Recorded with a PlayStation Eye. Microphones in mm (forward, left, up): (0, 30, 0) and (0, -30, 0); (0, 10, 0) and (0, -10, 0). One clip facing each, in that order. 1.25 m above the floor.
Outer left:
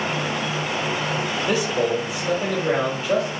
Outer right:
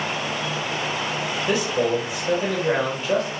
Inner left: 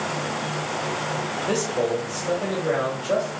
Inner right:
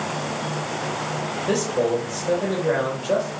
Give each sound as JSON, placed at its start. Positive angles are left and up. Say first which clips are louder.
{"t": 1.5, "sound": "a man speaking", "louder": "outer right 1 dB, inner right 3 dB", "side_deg": -5, "distance_m": 0.9}